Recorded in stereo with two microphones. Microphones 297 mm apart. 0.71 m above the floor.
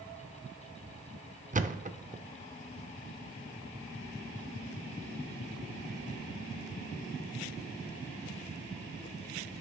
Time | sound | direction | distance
1.5 | a thud | 25° right (ahead or behind) | 0.5 m